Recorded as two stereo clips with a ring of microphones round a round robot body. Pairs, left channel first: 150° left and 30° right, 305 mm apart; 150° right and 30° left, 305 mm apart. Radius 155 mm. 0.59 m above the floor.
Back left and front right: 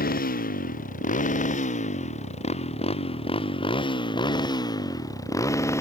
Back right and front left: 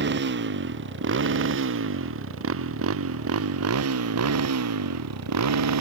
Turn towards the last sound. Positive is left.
turn(degrees=70)